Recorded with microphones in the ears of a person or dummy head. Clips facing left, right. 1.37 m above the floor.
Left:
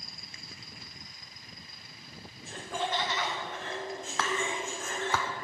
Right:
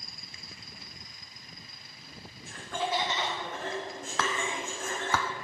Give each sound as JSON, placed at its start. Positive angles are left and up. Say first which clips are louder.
{"t": 2.5, "sound": "laughter", "louder": "right 1 dB", "side_deg": 30, "distance_m": 0.7}
{"t": 4.2, "sound": "whispering", "louder": "even", "side_deg": -55, "distance_m": 0.5}